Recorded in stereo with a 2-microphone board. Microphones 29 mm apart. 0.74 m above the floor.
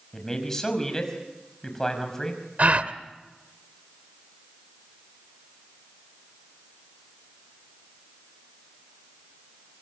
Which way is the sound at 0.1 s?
15° left (ahead or behind).